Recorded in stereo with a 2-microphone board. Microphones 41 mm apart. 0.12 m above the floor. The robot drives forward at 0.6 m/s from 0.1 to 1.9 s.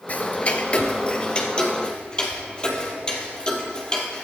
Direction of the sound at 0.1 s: 35° left (ahead or behind).